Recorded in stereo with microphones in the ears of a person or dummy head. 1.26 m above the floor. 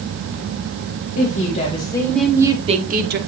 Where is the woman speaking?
45° left (ahead or behind), 1.6 m; by 3.2 s 55° right (ahead or behind), 1.2 m.